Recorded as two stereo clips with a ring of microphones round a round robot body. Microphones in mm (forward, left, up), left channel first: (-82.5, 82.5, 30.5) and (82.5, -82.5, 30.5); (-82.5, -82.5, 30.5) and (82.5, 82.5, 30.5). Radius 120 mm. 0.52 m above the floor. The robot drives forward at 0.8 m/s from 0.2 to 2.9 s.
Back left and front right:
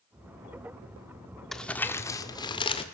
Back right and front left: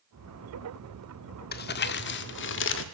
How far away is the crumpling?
About 1.4 m.